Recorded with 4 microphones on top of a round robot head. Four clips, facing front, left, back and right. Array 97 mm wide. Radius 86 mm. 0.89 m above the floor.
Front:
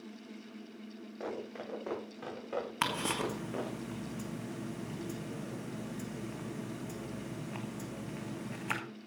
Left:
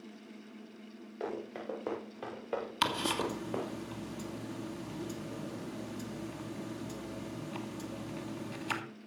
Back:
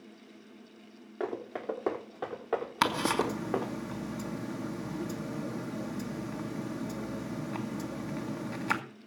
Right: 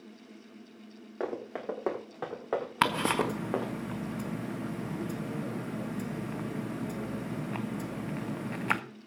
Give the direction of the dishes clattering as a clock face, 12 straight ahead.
No dishes clattering in this recording.